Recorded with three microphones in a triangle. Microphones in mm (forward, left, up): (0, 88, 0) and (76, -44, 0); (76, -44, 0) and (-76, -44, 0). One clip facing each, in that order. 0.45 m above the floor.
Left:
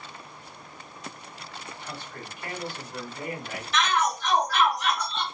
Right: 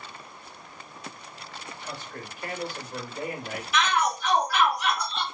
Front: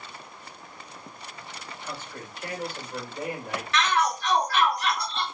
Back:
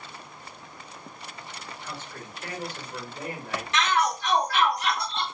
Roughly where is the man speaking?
Right.